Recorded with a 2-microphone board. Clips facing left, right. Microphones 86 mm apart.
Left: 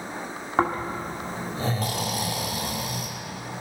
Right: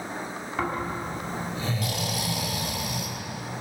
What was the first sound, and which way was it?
Snoring, 40° left (ahead or behind).